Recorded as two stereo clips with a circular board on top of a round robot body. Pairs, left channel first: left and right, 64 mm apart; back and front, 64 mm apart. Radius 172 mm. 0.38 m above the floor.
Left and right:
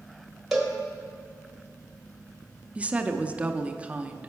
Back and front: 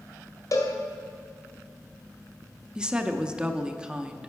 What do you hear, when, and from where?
0.5 s a cowbell: 175° right, 1.7 m
2.8 s a woman speaking: 55° right, 0.8 m